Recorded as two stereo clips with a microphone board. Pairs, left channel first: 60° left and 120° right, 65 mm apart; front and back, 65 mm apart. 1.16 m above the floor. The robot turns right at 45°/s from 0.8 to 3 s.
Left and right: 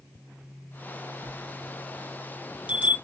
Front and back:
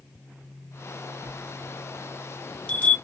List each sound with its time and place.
1.2 s a bell: 130° right, 0.6 m; by 3.0 s 55° right, 0.6 m